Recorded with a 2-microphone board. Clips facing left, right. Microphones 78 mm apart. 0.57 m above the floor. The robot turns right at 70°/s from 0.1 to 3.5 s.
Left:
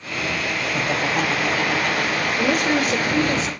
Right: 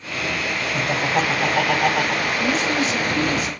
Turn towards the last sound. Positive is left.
turn(degrees=155)